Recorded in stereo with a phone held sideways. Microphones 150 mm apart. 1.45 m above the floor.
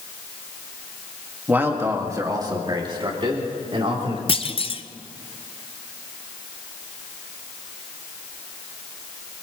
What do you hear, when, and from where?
1.5 s a man speaking: 10° right (ahead or behind), 1.8 m; by 4.2 s 40° right (ahead or behind), 3.5 m
4.3 s a clunk: 35° left (ahead or behind), 0.6 m